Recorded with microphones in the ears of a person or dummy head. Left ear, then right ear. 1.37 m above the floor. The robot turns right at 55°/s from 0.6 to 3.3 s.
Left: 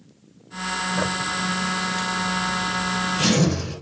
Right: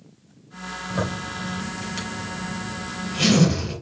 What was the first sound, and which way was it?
A zipper, 160° right.